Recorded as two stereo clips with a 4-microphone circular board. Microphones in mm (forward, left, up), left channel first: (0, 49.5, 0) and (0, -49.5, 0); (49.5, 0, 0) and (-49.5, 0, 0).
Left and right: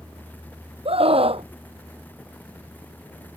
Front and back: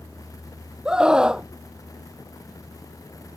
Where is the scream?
100° right.